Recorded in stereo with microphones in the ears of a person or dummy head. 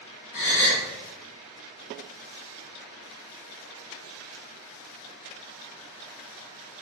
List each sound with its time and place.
0.3 s a gasp: 55° left (ahead or behind), 0.8 m